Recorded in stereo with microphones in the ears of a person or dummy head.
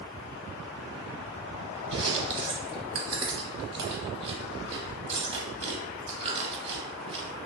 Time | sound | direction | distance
1.9 | chewing | 35° right (ahead or behind) | 0.7 m